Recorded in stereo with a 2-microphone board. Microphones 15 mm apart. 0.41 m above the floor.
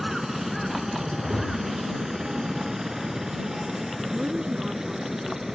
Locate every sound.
0.0 s a helicopter: 35° right (ahead or behind)
1.2 s a whoosh: 20° left (ahead or behind)
4.1 s a woman speaking: 75° right (ahead or behind)